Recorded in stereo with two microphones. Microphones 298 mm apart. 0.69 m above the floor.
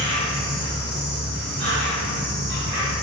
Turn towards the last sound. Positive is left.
turn(degrees=-35)  # may be behind; listen again after turning